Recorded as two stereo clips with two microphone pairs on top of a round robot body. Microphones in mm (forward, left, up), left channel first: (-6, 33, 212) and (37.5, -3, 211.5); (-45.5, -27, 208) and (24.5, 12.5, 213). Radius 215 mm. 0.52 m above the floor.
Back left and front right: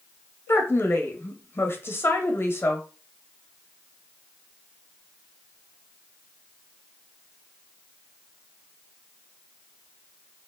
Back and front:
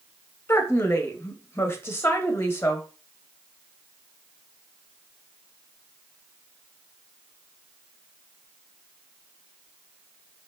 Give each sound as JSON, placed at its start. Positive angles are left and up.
{"t": 0.5, "sound": "a woman speaking", "azimuth_deg": 165, "distance_m": 0.7}